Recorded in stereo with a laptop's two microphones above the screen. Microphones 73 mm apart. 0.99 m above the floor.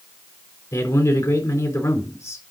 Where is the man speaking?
45° left (ahead or behind), 3.5 m.